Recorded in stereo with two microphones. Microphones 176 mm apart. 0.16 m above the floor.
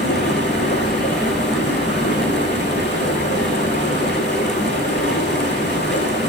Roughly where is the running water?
Left.